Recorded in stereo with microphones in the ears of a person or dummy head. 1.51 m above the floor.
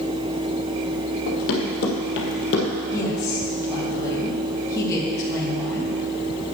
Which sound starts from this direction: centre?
A woman speaking, at 2.9 s.